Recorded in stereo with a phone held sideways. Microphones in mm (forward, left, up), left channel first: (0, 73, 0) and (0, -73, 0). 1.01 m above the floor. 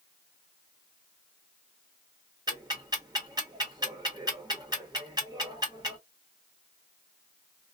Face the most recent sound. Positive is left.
turn(degrees=-25)  # may be behind; listen again after turning